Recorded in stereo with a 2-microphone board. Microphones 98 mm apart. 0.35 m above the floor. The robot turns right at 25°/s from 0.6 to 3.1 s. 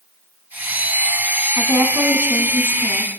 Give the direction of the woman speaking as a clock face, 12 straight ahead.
1 o'clock.